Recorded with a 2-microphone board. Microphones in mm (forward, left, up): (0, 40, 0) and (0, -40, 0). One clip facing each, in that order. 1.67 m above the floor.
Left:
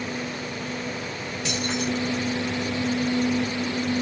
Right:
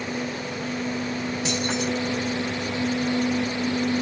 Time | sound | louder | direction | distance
1.4 | keys jangling | even | 25° right (ahead or behind) | 7.5 m